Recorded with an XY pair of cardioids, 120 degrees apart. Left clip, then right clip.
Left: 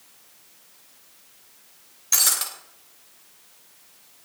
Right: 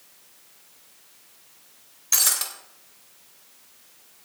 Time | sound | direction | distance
2.1 | breaking glass | straight ahead | 2.5 m